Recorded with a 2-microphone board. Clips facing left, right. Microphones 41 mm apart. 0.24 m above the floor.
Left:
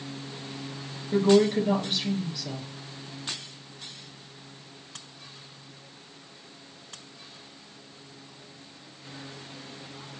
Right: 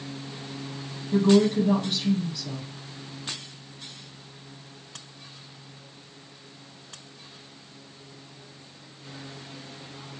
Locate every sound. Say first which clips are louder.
1.1 s a woman speaking: right 1 dB; 30° left (ahead or behind), 3 m